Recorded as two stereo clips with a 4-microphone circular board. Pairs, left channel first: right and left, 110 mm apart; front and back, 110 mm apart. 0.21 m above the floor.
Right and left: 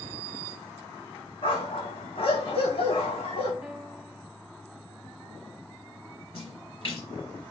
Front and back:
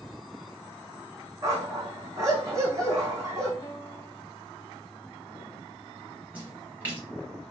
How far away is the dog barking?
About 3 m.